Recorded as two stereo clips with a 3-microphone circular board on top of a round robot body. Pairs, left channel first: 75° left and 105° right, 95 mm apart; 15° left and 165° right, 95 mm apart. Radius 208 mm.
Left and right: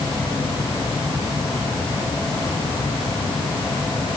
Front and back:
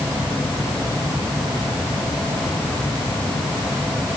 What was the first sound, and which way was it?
Only background noise.